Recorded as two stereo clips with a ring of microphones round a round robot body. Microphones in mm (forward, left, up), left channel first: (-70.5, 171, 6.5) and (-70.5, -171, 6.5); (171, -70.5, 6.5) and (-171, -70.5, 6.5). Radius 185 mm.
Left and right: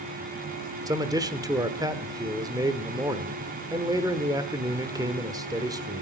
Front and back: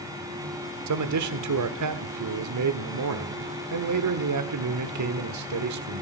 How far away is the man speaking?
About 1.3 m.